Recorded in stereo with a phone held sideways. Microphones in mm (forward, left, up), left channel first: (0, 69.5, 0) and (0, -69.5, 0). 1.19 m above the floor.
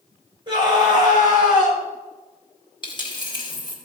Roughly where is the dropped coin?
Left.